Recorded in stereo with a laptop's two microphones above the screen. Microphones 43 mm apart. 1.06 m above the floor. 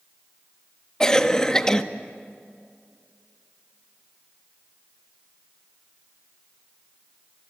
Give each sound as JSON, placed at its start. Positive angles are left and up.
{"t": 1.0, "sound": "a cough", "side_deg": 15, "distance_m": 1.2}